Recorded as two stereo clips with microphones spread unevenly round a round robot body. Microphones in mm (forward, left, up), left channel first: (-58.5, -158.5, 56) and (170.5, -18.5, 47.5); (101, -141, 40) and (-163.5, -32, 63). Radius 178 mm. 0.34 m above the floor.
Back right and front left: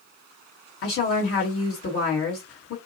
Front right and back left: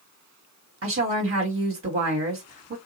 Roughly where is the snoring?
I don't hear snoring.